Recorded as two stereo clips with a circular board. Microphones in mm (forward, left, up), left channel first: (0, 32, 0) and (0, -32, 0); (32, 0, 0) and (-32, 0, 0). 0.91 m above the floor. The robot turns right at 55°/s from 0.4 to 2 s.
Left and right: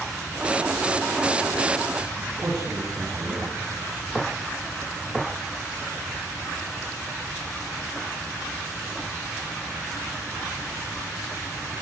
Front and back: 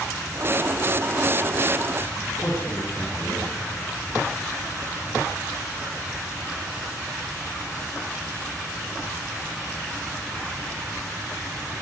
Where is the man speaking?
65° right, 10 m.